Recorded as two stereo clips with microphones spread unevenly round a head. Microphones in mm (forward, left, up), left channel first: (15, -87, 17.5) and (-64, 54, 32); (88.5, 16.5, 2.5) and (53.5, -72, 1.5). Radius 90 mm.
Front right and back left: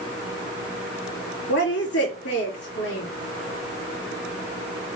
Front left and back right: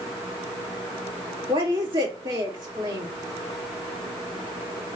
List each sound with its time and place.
1.5 s a woman speaking: 75° right, 2.5 m